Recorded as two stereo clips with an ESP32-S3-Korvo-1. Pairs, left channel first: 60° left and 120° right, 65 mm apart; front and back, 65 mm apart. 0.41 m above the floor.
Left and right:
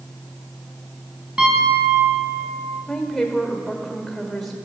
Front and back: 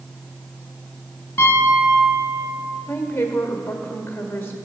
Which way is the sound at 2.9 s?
25° right.